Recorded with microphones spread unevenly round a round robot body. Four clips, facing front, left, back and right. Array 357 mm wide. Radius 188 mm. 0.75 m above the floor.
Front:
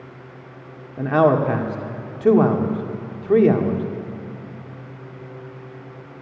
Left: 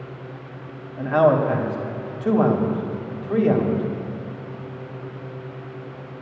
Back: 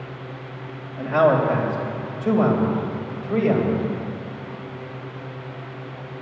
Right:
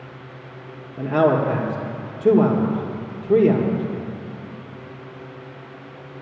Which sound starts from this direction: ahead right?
A man speaking, at 1.0 s.